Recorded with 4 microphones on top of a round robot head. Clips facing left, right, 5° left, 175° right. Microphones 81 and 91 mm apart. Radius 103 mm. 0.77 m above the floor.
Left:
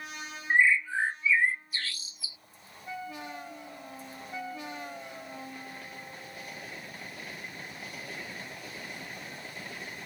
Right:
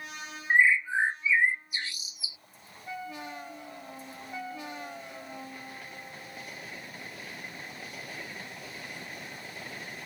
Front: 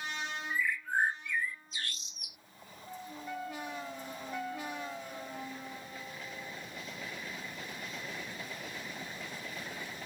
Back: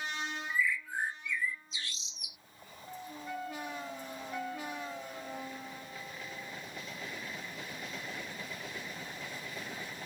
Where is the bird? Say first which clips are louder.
Right 1 dB, front 1 dB; 20° right.